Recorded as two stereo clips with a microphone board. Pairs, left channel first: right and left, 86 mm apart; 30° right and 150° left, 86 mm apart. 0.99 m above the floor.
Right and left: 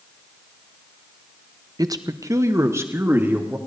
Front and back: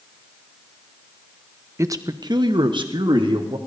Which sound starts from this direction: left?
A man speaking, at 1.8 s.